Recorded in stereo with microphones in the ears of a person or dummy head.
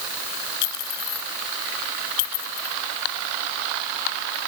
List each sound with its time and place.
0.6 s a clink: 60° left (ahead or behind)